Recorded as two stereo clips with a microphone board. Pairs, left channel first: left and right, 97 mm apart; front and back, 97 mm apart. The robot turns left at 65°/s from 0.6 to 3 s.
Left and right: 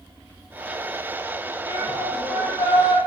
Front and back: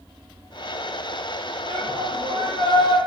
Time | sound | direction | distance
1.6 | a shout | 145° right | 8 m